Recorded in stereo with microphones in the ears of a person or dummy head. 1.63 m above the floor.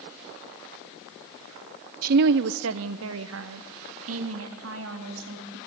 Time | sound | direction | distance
2.0 | a woman speaking | 40° right (ahead or behind) | 0.5 m